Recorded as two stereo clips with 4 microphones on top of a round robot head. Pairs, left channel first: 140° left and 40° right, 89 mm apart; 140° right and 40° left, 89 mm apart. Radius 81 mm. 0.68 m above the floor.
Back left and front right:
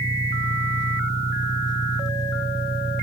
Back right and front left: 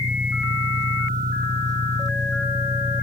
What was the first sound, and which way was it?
An engine running, 90° left.